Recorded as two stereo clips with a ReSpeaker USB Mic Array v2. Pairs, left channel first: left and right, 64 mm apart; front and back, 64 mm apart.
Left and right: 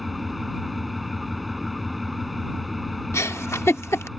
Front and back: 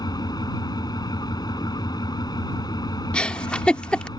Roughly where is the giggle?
Left.